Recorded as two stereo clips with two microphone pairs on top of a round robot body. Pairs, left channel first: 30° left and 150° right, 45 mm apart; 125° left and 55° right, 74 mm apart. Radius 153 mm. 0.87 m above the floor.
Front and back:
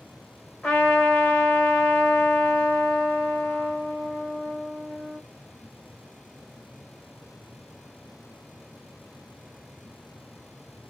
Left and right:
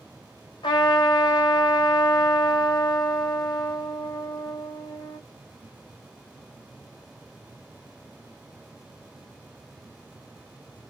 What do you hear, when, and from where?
0.6 s a trumpet: 100° left, 1.2 m